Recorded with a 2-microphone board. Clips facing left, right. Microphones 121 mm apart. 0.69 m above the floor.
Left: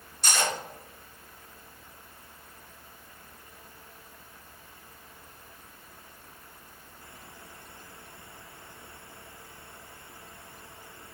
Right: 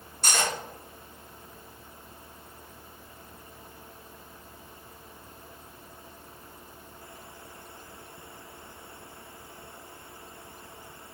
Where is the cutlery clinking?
55° right (ahead or behind), 1.1 m.